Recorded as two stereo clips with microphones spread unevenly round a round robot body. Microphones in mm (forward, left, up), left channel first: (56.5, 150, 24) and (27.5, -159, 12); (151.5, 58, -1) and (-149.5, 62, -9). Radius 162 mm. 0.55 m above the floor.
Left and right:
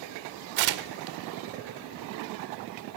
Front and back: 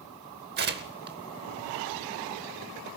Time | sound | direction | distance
0.6 | tearing paper | 120° right | 0.8 m